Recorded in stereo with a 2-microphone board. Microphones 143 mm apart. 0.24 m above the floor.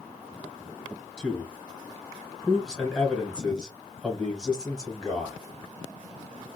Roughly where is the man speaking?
Centre.